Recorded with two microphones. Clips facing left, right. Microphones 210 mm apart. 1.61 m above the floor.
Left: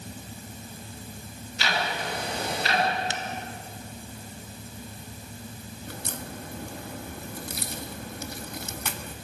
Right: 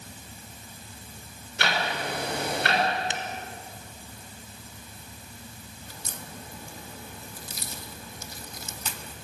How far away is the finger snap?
About 2 m.